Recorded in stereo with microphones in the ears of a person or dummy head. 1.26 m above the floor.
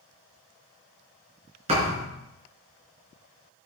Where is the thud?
35° right (ahead or behind), 4.5 m.